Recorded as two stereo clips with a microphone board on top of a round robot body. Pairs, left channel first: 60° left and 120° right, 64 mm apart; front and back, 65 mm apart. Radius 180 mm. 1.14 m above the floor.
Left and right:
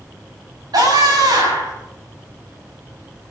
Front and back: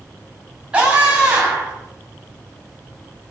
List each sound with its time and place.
0.7 s a scream: 110° right, 9 m